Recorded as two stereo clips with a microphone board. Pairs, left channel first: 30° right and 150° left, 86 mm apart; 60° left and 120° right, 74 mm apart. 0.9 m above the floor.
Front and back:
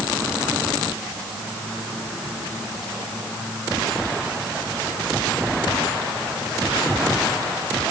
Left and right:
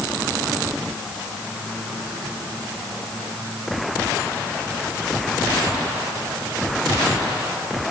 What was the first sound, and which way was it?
Only background noise.